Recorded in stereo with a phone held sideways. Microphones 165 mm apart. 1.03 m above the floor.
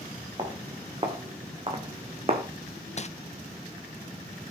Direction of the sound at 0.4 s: 30° right (ahead or behind).